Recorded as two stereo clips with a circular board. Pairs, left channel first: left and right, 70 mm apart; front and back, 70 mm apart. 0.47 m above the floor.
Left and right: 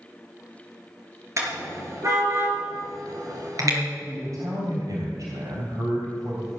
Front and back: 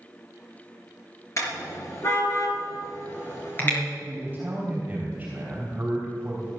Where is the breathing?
No breathing in this recording.